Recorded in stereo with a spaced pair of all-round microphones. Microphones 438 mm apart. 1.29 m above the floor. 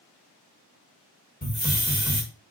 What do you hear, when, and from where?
1.4 s a hiss: 20° left (ahead or behind), 1.2 m